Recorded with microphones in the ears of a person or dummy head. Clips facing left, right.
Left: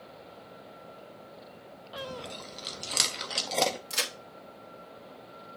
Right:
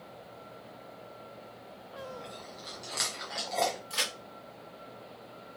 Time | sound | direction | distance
2.0 | chewing | 45° left (ahead or behind) | 0.9 m
3.9 | a crack | 25° left (ahead or behind) | 2 m